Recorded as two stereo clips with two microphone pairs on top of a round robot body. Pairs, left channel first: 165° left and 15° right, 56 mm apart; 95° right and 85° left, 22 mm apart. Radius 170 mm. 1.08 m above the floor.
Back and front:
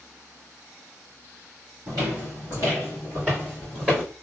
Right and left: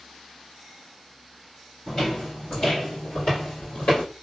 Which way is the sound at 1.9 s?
35° right.